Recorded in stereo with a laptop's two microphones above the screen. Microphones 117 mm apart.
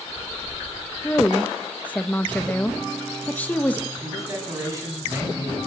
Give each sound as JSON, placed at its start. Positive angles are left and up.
{"t": 1.0, "sound": "a woman speaking", "side_deg": 15, "distance_m": 1.1}
{"t": 4.0, "sound": "a man speaking", "side_deg": -25, "distance_m": 7.5}